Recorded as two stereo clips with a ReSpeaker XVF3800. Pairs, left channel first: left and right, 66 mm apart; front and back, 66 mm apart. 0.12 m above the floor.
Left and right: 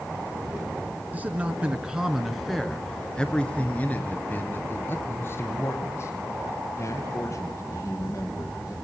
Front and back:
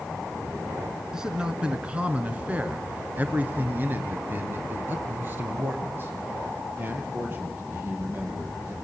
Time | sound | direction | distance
1.1 | a man speaking | 110° right | 1.6 m